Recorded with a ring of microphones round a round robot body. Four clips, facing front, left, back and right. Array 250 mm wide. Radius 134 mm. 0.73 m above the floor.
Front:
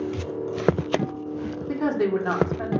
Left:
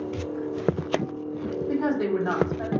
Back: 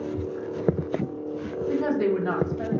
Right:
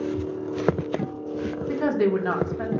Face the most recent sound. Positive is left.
turn(degrees=-60)